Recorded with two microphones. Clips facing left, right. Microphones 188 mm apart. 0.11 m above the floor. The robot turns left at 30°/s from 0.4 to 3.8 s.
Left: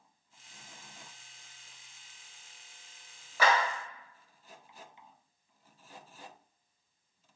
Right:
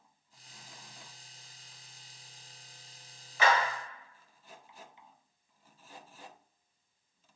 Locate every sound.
3.4 s a clap: 40° left (ahead or behind), 1.3 m